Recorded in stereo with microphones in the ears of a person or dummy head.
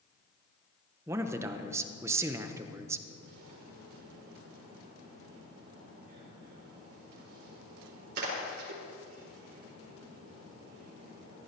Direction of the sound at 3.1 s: 60° right (ahead or behind).